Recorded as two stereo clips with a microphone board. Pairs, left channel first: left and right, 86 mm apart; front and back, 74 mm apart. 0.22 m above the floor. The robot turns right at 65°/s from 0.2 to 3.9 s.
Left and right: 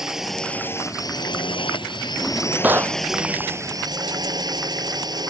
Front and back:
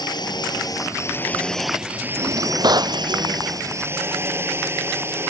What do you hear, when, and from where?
0.0 s a drone: 5° right; by 5.3 s 125° right
2.2 s a drawer: 170° left; by 3.0 s 135° right